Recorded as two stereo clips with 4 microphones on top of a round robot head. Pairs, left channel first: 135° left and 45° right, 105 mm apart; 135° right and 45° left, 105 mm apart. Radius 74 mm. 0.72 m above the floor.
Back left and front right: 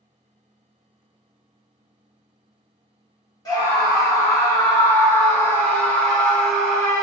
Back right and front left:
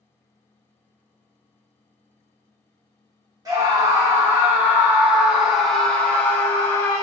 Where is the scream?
90° left, 1.7 m; by 7.0 s 130° right, 1.2 m.